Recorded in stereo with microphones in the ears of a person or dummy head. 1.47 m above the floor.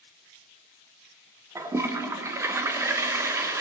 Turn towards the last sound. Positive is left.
turn(degrees=-15)  # may be behind; listen again after turning